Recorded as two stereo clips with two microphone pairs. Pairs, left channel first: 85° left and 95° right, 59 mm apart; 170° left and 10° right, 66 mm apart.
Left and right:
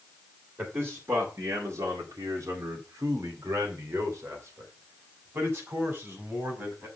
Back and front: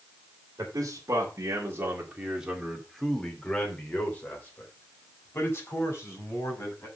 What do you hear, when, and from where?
0.6 s a man speaking: 40° right, 2.5 m; by 6.9 s 145° right, 5.5 m